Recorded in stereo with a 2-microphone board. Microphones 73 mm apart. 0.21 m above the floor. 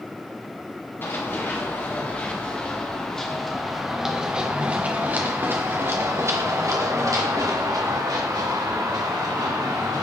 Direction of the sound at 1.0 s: 30° left (ahead or behind).